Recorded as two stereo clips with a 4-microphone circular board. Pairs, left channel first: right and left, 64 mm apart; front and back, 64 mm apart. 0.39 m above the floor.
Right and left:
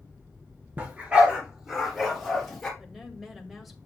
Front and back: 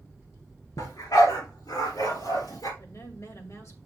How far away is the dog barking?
About 3 m.